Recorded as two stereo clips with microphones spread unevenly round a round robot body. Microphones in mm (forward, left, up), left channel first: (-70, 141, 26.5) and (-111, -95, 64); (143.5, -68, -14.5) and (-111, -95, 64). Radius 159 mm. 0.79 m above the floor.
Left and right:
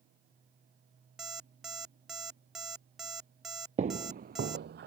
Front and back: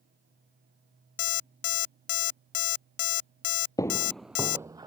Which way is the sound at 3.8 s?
90° right.